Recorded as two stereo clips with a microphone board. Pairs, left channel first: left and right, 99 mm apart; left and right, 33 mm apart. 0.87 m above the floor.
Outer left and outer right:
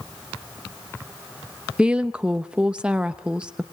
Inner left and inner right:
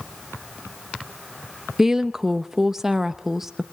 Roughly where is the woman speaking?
Centre.